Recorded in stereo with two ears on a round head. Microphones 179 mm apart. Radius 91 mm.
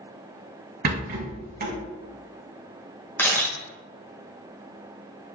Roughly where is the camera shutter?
Centre.